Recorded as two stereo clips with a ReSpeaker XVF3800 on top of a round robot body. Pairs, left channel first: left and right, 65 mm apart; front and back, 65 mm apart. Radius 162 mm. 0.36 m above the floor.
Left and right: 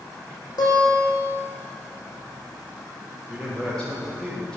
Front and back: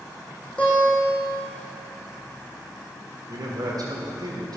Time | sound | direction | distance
0.6 | a guitar | 75° left | 4.5 m
3.3 | a man speaking | 170° left | 2.5 m